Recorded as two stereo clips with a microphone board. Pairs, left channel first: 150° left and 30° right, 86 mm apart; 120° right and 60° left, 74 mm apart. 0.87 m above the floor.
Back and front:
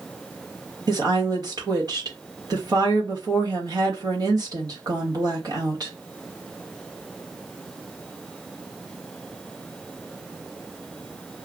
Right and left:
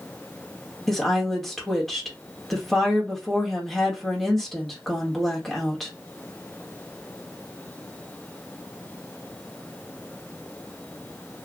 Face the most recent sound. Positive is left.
turn(degrees=-35)